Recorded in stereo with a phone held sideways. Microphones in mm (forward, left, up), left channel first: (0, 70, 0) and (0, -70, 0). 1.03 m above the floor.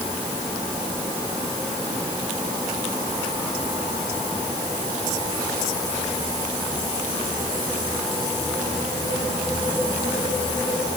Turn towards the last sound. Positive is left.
No sound to turn to.